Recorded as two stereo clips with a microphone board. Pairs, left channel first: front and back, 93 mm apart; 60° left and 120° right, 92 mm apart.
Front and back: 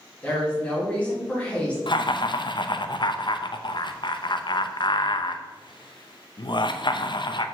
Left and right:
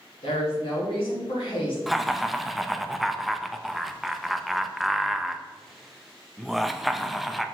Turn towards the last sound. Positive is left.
turn(degrees=-30)